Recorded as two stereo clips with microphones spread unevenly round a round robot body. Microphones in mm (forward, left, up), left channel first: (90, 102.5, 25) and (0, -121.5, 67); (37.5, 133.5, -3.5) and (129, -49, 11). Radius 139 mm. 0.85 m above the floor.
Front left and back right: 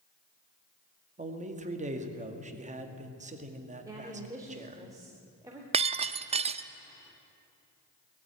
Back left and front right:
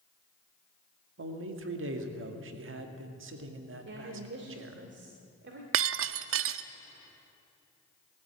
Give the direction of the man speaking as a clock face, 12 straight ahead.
2 o'clock.